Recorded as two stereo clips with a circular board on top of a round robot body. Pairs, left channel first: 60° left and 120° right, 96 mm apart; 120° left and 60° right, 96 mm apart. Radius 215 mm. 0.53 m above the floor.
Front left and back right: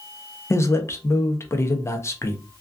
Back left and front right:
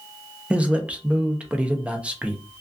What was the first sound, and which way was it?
A man speaking, 15° left.